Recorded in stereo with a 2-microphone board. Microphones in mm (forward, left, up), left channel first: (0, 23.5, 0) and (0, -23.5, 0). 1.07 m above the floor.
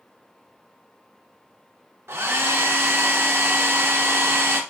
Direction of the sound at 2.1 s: 65° right (ahead or behind).